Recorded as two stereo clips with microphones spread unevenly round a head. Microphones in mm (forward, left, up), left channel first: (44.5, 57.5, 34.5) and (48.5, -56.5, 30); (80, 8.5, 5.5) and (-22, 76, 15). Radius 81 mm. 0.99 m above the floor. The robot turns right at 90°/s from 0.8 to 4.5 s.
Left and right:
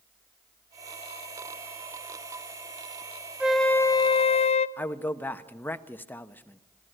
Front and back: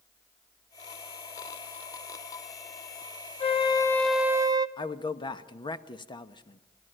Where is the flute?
10° right, 1.0 m; by 4.7 s 85° left, 1.0 m.